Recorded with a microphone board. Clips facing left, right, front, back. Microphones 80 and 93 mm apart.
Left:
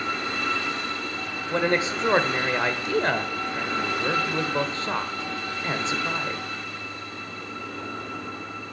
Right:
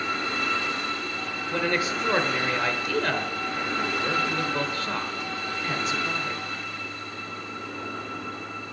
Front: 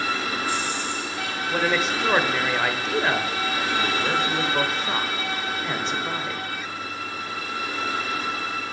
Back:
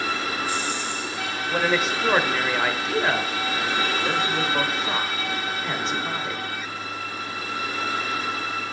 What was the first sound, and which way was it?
A man speaking, 95° left.